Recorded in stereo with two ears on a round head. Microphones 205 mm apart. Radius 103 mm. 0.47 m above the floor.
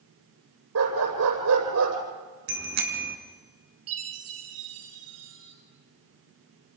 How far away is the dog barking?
About 9 m.